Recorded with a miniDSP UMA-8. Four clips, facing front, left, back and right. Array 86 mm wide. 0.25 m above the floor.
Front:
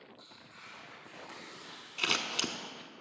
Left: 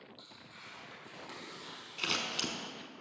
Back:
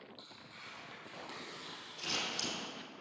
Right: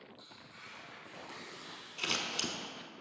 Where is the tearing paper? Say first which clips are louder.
Even, even; 150° left, 2.5 m.